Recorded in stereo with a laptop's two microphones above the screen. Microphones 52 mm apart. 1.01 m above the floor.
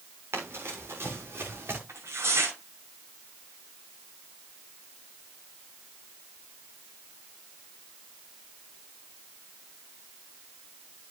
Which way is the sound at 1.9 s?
60° right (ahead or behind).